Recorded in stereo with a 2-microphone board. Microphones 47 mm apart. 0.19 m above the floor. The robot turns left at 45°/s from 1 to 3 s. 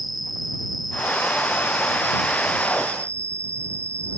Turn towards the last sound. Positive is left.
turn(degrees=-90)